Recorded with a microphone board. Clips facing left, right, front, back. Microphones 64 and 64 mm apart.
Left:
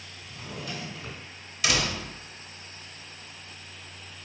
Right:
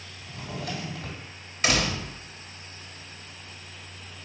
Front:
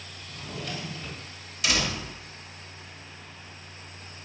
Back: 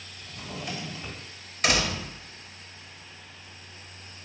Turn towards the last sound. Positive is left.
turn(degrees=-135)